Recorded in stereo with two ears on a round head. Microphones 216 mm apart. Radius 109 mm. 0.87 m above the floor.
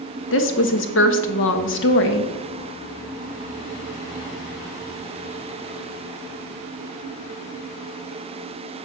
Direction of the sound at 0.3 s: 55° left (ahead or behind).